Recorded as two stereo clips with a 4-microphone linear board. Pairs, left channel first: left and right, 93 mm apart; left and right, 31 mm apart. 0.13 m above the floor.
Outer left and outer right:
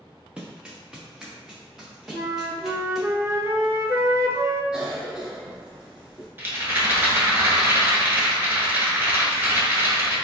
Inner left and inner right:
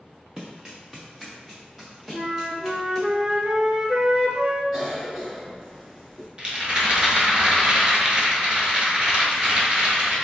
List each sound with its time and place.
0.4 s running footsteps: 10° right (ahead or behind), 0.9 m; by 3.1 s centre (ahead or behind), 2.5 m
2.1 s a flute: 30° right (ahead or behind), 0.5 m
4.7 s a cough: 10° right (ahead or behind), 1.4 m
6.4 s a rattle: 25° right (ahead or behind), 1.3 m